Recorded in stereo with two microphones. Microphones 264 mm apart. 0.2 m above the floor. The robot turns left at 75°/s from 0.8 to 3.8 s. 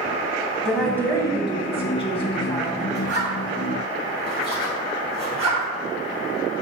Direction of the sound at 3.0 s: 40° left (ahead or behind).